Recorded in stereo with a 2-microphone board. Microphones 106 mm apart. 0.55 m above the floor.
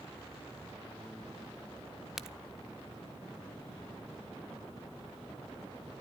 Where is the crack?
5° right (ahead or behind), 0.9 m.